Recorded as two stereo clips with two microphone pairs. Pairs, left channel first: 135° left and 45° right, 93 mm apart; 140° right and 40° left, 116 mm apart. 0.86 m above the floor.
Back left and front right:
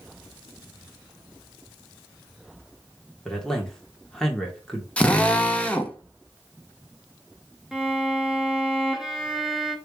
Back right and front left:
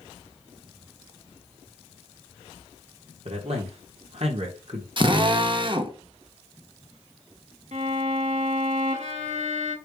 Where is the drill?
65° left, 1.0 m.